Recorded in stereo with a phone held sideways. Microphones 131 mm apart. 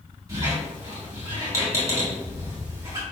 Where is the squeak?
25° right (ahead or behind), 1.8 m.